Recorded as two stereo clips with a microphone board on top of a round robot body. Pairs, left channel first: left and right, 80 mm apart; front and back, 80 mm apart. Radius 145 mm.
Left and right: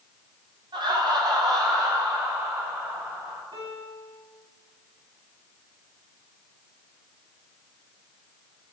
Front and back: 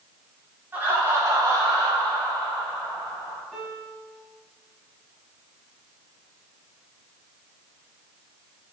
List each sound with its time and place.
0.7 s laughter: 115° right, 3 m; by 3.4 s 150° right, 5.5 m
3.5 s a piano: 100° right, 3.5 m